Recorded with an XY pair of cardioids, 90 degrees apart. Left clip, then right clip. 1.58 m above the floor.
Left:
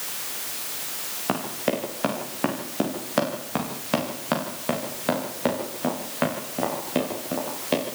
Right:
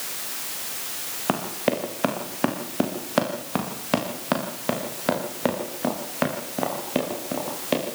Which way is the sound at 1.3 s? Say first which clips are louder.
Right 2 dB; 20° right.